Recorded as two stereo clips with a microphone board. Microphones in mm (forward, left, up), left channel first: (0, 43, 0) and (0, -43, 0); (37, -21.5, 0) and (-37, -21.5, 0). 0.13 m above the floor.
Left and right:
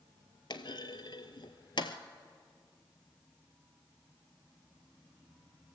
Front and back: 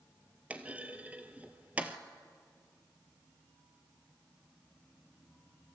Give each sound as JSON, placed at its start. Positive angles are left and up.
{"t": 0.5, "sound": "a clunk", "azimuth_deg": 110, "distance_m": 0.9}